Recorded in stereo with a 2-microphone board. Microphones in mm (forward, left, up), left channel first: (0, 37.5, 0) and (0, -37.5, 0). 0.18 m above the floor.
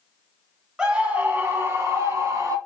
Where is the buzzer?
No buzzer in this recording.